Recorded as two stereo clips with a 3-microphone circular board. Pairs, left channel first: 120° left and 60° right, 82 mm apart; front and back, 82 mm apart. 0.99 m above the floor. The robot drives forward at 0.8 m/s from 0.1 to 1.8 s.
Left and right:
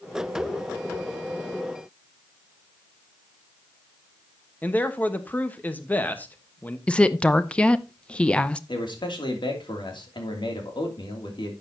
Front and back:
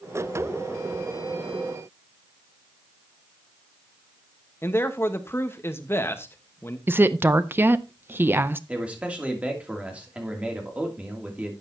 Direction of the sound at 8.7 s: 105° left.